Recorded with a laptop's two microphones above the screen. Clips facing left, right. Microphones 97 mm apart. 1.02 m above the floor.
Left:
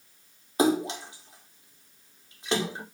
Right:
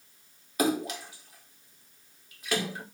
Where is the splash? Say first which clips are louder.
Left 4 dB; 25° left (ahead or behind), 2.5 m.